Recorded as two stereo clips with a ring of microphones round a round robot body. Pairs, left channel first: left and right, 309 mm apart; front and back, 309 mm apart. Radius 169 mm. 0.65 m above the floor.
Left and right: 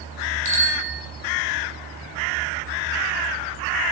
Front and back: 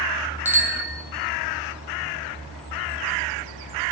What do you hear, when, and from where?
0.5 s a bicycle bell: 95° right, 3.5 m